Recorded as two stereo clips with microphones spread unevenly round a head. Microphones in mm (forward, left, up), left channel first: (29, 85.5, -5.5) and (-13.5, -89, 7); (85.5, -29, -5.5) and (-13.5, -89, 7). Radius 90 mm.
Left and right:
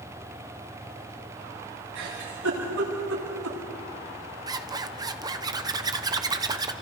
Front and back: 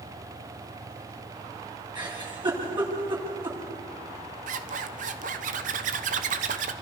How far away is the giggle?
About 9 m.